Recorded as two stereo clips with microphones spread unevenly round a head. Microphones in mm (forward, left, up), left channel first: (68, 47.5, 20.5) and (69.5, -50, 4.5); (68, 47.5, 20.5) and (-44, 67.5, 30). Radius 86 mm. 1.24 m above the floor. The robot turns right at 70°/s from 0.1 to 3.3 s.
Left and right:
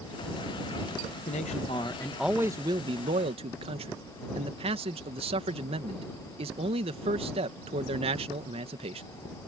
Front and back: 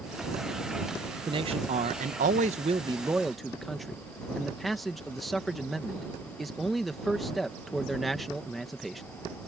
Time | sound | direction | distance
1.3 | a man speaking | 120° left | ?